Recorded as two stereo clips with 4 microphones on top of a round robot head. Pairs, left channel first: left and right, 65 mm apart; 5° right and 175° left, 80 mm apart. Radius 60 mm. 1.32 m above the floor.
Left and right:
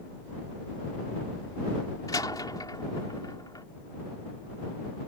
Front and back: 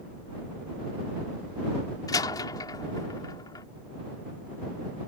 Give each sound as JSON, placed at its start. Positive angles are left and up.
{"t": 2.1, "sound": "a door slam", "azimuth_deg": 35}